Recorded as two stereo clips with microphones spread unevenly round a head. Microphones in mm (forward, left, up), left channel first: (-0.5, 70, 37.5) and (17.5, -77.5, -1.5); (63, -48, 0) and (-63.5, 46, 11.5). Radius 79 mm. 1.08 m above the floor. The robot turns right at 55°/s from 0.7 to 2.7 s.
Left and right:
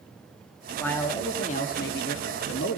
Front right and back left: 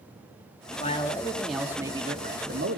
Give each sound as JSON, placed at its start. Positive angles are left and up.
{"t": 0.8, "sound": "a man speaking", "azimuth_deg": 15, "distance_m": 2.0}